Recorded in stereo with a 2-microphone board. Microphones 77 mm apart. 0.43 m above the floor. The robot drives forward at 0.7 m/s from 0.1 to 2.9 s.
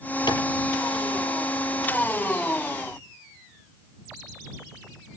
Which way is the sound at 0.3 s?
70° left (ahead or behind).